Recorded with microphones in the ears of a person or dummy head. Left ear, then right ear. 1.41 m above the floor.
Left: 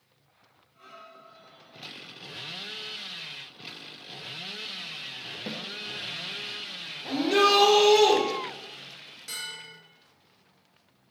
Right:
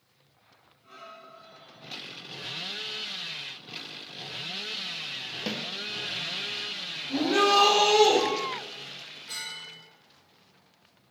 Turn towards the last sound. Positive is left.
turn(degrees=85)